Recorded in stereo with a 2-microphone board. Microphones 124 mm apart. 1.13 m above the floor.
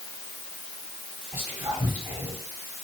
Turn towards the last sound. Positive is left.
turn(degrees=-20)  # may be behind; listen again after turning